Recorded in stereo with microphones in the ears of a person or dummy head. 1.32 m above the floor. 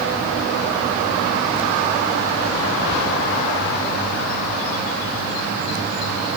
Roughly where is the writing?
No writing in this recording.